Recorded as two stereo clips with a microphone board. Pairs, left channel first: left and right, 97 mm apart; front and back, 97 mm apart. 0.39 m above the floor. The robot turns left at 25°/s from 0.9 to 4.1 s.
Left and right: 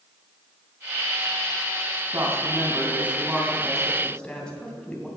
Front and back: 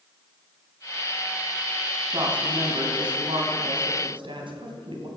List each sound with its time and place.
2.1 s a woman speaking: 140° right, 2.5 m; by 5.1 s 170° left, 2.5 m